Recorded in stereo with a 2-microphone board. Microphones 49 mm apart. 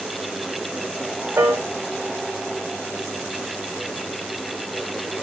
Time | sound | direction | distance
1.4 | a piano | 65° right (ahead or behind) | 1.0 m